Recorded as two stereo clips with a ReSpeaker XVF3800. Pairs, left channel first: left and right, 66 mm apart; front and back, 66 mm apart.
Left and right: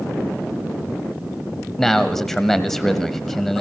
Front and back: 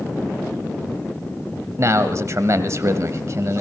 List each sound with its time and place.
1.8 s a man speaking: 175° left, 1.3 m